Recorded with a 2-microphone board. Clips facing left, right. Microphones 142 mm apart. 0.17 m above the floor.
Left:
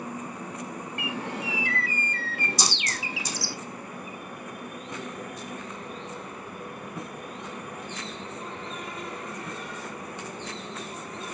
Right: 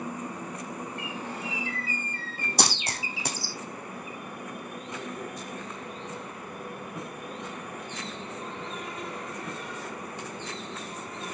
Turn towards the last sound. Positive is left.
turn(degrees=-65)  # may be behind; listen again after turning